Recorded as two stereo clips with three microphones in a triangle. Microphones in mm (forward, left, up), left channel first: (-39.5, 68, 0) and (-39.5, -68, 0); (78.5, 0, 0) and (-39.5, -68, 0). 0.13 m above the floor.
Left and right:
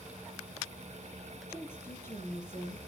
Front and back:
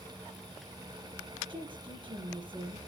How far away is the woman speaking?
About 4 m.